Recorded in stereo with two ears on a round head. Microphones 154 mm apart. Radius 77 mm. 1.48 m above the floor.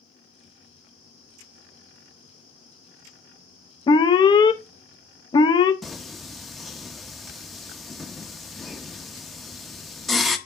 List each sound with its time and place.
3.9 s an alarm: 25° left (ahead or behind), 0.7 m
5.8 s singing: centre (ahead or behind), 0.8 m